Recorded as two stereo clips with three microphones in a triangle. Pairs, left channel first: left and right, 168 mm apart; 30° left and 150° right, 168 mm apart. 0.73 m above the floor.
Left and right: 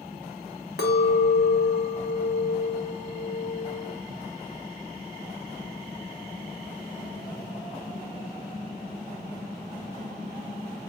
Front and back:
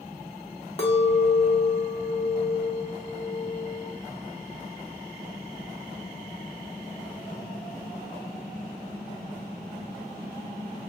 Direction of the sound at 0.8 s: 80° left.